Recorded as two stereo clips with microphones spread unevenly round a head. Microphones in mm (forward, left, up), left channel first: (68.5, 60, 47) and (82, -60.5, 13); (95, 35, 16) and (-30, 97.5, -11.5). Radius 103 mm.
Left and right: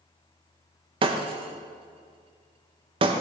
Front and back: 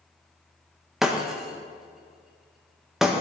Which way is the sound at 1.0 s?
90° right.